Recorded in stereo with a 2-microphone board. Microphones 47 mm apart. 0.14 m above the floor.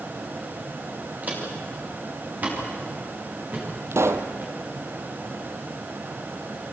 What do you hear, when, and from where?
1.2 s footsteps: 35° right (ahead or behind), 8 m; by 4.5 s 40° right (ahead or behind), 11 m
3.9 s a pop: 75° right (ahead or behind), 1.4 m